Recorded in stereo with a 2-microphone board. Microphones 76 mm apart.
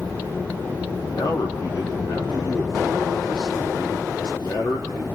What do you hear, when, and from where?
1.1 s a man speaking: 75° left (ahead or behind), 6.5 m